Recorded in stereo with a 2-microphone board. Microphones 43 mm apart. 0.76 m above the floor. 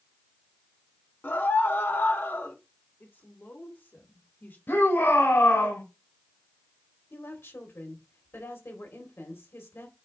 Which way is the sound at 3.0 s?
50° left (ahead or behind).